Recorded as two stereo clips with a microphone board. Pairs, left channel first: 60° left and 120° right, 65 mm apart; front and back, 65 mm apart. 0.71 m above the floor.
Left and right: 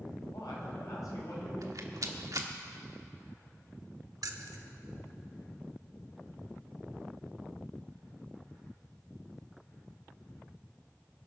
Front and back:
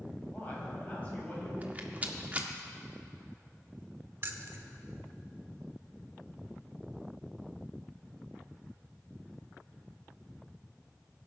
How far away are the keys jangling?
About 1.1 m.